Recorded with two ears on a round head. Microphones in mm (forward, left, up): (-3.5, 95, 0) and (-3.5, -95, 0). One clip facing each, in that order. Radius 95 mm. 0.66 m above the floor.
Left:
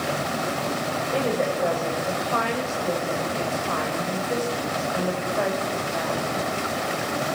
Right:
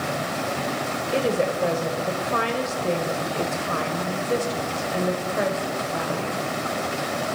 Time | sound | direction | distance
1.1 | a woman speaking | 30° right (ahead or behind) | 3.5 m